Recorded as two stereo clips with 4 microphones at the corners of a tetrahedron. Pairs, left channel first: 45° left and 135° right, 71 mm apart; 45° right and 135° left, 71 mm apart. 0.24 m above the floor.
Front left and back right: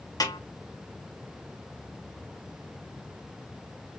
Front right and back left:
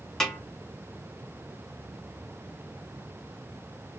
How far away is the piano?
No piano in this recording.